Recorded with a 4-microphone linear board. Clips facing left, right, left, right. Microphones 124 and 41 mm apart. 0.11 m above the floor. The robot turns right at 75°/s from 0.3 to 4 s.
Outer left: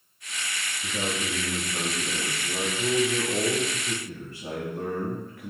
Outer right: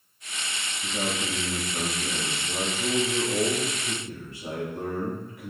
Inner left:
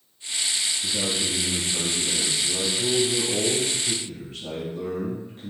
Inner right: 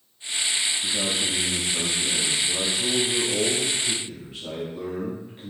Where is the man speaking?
25° right, 1.9 m; by 5.5 s 145° right, 1.9 m.